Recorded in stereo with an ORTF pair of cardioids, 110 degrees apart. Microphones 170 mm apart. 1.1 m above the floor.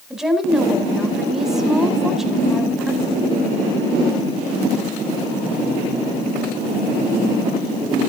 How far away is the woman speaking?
About 4 m.